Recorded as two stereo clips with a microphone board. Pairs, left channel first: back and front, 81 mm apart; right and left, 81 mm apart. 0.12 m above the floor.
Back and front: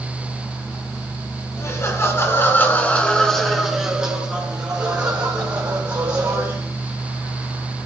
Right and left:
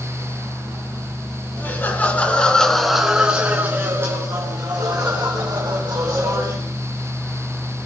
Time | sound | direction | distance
1.6 | laughter | 145° right | 2.5 m